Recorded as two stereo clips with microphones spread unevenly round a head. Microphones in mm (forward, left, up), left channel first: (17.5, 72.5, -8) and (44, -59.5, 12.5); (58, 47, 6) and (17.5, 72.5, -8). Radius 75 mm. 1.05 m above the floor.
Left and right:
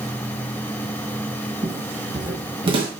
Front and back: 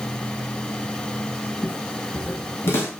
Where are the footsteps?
30° right, 2 m; by 2.9 s 40° right, 3 m.